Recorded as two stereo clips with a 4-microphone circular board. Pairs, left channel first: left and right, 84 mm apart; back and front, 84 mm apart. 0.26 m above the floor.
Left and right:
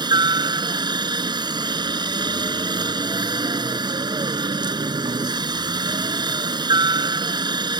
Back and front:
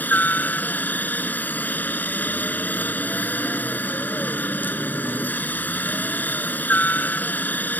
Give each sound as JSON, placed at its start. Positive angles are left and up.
{"t": 0.0, "sound": "a helicopter", "azimuth_deg": -110}